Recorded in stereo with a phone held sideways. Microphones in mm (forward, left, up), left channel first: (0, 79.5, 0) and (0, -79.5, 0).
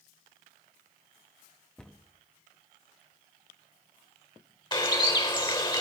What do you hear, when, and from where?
1.8 s a cupboard door: 5° left (ahead or behind), 0.7 m
4.7 s a bird: 30° left (ahead or behind), 1.3 m